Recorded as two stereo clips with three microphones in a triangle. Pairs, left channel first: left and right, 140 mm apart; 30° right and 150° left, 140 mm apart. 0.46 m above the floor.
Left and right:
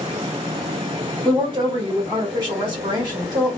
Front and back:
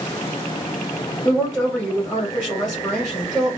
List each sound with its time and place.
1.2 s a woman speaking: 125° right, 1.7 m